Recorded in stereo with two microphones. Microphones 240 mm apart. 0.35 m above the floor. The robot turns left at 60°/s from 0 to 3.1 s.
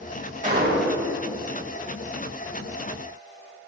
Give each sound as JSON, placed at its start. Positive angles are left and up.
{"t": 0.4, "sound": "a gunshot", "azimuth_deg": -35, "distance_m": 1.1}